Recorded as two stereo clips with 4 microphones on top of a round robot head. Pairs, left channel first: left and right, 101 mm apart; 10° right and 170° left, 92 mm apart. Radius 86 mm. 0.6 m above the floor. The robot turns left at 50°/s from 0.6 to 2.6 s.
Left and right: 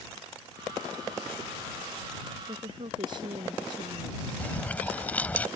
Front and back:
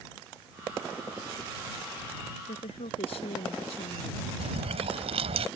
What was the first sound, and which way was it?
A woman speaking, 30° right.